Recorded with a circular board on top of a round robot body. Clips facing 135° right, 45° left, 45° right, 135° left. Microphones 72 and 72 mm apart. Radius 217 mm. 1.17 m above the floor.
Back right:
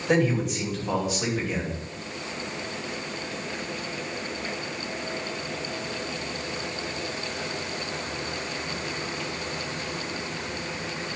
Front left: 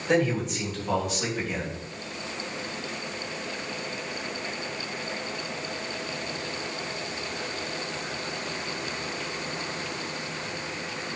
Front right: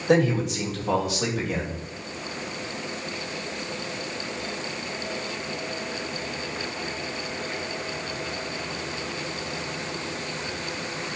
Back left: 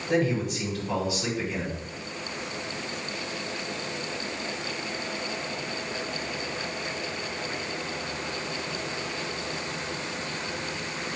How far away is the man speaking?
About 3 m.